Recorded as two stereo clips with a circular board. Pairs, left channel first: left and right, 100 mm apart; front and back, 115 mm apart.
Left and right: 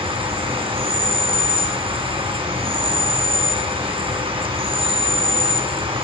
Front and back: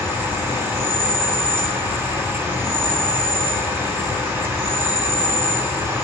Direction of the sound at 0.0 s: 110° right.